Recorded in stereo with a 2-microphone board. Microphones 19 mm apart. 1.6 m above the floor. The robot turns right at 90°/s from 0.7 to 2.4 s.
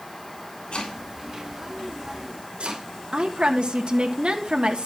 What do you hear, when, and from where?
0.7 s chopping: 60° left (ahead or behind), 7 m; by 2.9 s 85° right, 7 m
3.1 s a woman speaking: 70° right (ahead or behind), 3 m